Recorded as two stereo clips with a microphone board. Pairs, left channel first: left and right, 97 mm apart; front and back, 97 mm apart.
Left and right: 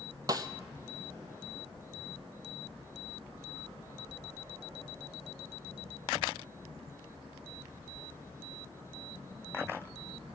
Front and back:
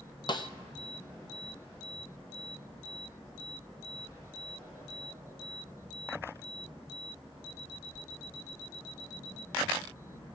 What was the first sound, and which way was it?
A snare drum, 40° right.